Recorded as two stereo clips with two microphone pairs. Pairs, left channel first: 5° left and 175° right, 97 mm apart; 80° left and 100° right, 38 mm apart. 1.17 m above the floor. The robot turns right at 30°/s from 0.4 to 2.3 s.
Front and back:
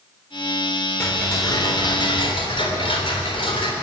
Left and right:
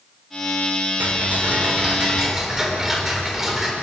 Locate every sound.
1.0 s ticking: 60° right, 3.5 m; by 3.7 s 25° right, 3.5 m